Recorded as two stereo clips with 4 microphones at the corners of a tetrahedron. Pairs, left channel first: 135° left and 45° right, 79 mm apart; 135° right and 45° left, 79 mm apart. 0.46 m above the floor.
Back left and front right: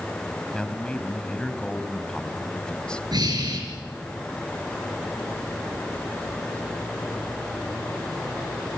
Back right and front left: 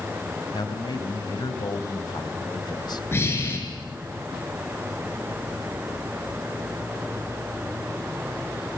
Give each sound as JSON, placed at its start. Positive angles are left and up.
{"t": 0.5, "sound": "a man speaking", "azimuth_deg": -150, "distance_m": 2.5}
{"t": 3.1, "sound": "breathing", "azimuth_deg": -75, "distance_m": 5.5}